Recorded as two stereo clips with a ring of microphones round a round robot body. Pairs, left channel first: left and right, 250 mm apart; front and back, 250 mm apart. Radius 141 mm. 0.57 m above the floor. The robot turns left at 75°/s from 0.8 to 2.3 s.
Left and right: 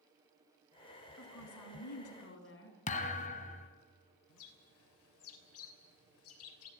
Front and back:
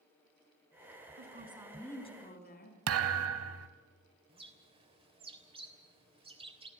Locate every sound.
1.2 s a woman speaking: 135° left, 4.5 m; by 2.8 s 50° left, 4.5 m
2.9 s a thud: 155° left, 1.2 m
4.3 s a bird: 115° left, 3 m